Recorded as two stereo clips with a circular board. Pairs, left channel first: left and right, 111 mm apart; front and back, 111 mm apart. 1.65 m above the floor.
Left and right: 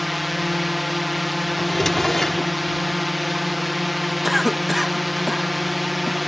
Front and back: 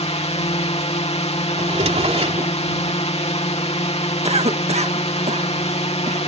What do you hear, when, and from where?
0.0 s a drone: straight ahead
1.6 s a drawer: straight behind
4.2 s a cough: straight behind